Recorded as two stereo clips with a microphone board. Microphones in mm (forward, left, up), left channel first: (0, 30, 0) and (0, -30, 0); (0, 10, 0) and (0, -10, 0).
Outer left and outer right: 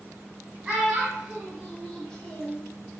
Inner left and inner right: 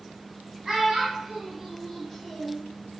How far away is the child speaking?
About 1.0 m.